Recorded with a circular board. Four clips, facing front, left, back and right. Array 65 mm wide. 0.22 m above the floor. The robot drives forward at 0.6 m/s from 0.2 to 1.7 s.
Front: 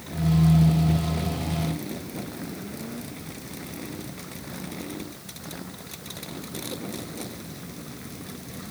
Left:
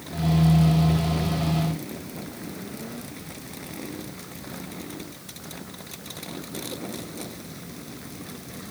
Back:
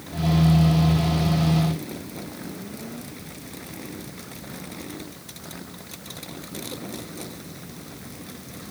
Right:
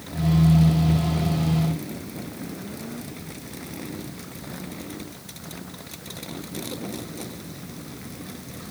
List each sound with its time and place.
Only background noise.